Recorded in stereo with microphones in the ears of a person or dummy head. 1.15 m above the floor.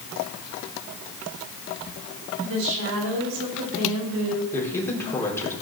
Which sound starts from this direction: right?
A woman speaking, at 2.4 s.